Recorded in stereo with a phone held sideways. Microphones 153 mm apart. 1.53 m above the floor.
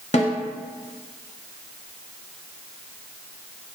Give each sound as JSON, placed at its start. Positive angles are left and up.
{"t": 0.1, "sound": "a snare drum", "side_deg": 50, "distance_m": 0.8}